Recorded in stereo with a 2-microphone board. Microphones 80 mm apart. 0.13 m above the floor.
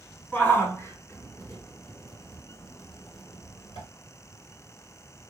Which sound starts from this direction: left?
A shout, at 0.3 s.